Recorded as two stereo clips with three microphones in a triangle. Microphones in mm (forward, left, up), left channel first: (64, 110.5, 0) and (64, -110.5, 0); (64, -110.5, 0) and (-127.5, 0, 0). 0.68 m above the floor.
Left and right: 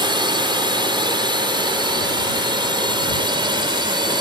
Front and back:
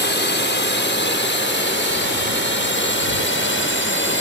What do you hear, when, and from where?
0.0 s a drone: 25° right